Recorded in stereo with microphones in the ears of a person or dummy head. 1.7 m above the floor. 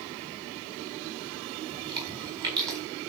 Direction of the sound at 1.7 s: 15° right (ahead or behind).